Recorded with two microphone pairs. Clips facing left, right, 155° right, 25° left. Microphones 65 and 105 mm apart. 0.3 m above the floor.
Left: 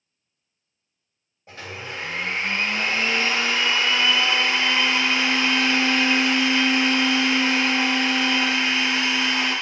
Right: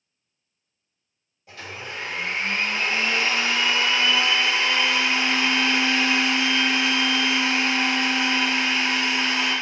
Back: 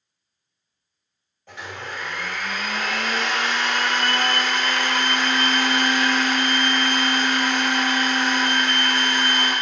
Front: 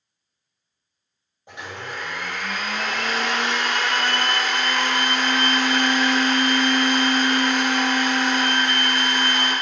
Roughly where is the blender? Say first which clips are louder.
Left 1 dB, even; left.